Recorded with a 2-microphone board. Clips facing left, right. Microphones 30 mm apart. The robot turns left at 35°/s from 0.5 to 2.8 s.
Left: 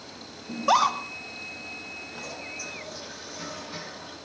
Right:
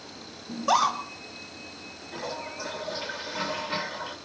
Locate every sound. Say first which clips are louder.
0.5 s a scream: left 2 dB; 15° left (ahead or behind), 0.9 m; by 1.0 s centre (ahead or behind), 0.9 m
2.1 s a toilet flushing: right 7 dB; 40° right (ahead or behind), 1.3 m; by 4.2 s 55° right (ahead or behind), 1.3 m